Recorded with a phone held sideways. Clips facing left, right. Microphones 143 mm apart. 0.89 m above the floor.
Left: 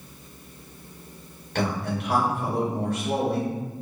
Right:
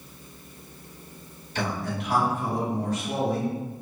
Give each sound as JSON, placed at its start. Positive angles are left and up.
{"t": 1.6, "sound": "a man speaking", "side_deg": 60, "distance_m": 1.7}